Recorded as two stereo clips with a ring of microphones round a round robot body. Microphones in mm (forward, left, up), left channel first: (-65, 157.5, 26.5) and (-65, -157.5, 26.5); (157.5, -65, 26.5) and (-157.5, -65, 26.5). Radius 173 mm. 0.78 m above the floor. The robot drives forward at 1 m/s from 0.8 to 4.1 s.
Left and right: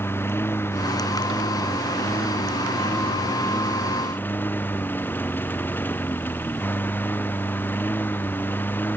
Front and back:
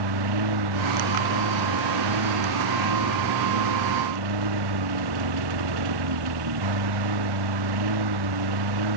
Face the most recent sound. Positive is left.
turn(degrees=175)